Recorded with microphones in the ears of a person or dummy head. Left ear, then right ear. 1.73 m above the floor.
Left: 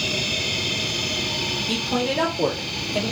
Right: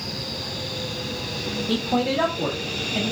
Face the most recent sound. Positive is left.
turn(degrees=25)  # may be behind; listen again after turning